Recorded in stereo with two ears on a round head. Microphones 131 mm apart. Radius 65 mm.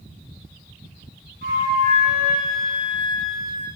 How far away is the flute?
About 7 m.